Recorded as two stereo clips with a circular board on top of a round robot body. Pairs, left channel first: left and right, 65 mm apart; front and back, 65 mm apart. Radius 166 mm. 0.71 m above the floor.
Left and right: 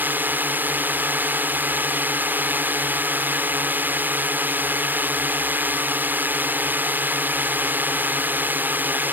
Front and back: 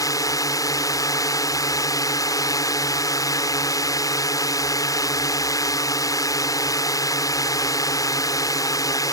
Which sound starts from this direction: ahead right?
A drone, at 0.0 s.